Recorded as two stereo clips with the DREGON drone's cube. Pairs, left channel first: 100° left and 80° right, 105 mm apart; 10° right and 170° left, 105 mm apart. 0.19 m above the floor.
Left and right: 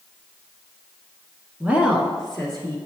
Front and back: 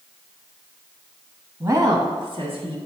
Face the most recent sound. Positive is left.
turn(degrees=180)